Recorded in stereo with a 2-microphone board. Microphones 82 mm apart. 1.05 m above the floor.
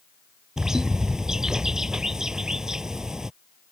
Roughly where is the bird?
Centre.